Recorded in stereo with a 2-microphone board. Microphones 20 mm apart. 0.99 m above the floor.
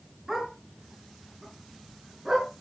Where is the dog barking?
15° right (ahead or behind), 6 m.